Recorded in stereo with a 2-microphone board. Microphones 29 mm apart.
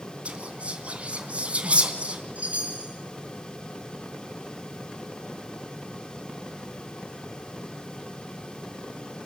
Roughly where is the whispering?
Right.